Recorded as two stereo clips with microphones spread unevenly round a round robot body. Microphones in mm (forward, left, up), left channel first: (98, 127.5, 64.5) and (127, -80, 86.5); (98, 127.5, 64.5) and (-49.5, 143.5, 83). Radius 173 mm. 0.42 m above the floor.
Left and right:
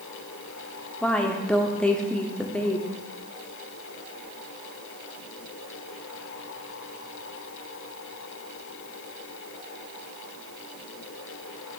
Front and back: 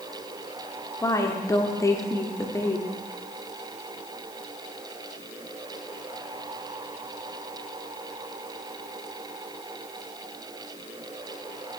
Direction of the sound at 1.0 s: 25° left.